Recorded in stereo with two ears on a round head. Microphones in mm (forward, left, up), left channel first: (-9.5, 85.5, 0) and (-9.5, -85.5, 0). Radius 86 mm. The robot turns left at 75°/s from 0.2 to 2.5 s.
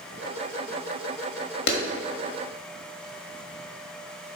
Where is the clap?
60° left (ahead or behind), 1.4 m; by 1.8 s 55° left (ahead or behind), 1.4 m.